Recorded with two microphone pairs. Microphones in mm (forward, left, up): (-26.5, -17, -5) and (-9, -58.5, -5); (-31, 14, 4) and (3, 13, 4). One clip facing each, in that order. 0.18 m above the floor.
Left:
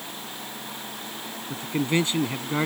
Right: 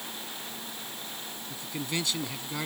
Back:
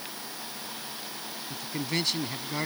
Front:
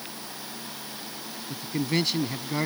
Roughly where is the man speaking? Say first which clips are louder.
Left 10 dB, front 4 dB; left.